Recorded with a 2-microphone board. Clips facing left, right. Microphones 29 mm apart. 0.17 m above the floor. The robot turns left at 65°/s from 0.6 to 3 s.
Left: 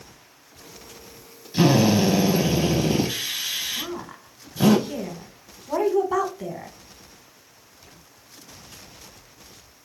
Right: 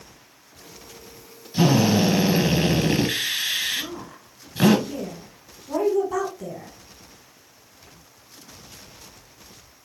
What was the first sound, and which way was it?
A drill, 15° left.